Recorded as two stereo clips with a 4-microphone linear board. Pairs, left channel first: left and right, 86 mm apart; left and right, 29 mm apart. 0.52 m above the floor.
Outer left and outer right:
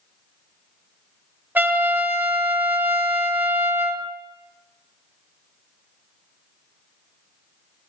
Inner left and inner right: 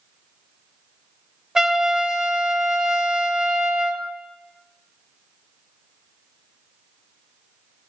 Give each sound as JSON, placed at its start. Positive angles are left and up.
{"t": 1.6, "sound": "a trumpet", "side_deg": -20, "distance_m": 0.7}